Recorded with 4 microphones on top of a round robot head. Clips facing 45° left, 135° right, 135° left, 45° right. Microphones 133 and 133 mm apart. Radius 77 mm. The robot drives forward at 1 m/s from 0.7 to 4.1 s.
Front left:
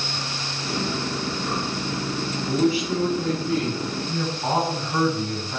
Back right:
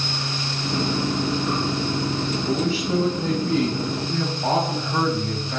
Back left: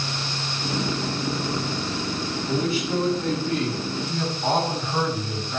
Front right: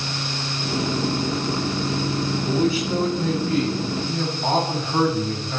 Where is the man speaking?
115° right, 4.5 m; by 5.6 s 130° right, 5.5 m.